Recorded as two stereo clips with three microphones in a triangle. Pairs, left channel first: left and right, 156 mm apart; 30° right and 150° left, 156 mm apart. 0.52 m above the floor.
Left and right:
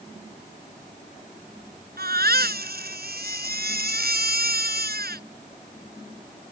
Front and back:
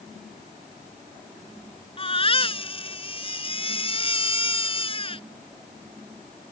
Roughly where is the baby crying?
Right.